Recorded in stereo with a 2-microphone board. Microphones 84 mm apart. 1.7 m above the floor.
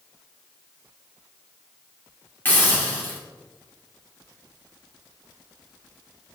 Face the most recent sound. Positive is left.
turn(degrees=20)  # may be behind; listen again after turning